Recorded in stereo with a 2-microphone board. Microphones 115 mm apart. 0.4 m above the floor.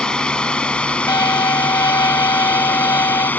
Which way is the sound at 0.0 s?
10° left (ahead or behind).